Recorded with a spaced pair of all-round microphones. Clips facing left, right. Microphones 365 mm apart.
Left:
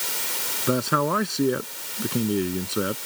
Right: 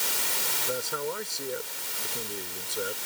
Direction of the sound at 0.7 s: 85° left.